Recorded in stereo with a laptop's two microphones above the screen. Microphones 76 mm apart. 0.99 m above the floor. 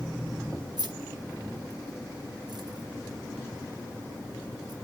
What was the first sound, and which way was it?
Keys jangling, 60° right (ahead or behind).